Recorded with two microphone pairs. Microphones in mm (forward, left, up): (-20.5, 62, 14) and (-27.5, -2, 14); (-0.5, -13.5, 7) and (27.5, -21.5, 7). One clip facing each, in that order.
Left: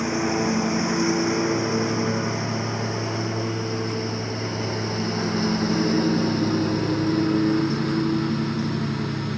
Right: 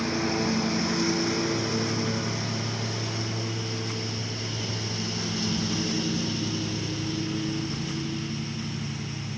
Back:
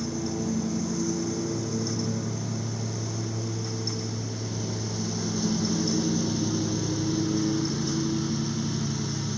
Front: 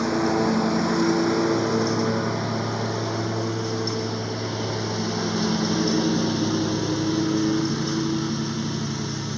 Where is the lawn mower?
10° left; by 9.4 s 50° left.